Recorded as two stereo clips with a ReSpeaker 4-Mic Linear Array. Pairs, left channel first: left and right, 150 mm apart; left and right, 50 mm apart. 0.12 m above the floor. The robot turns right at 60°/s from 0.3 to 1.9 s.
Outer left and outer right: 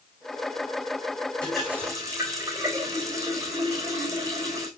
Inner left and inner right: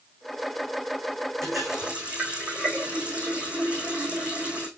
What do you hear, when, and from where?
1.4 s a running tap: 10° left (ahead or behind), 4 m; by 4.7 s 20° right (ahead or behind), 4 m